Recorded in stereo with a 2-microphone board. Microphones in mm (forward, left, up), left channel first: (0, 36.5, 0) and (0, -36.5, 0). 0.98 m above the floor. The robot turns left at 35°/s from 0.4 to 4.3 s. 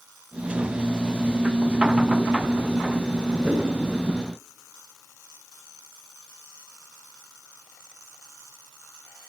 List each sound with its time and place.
3.4 s a whoosh: 25° left (ahead or behind), 6.5 m; by 3.6 s 20° left (ahead or behind), 6.5 m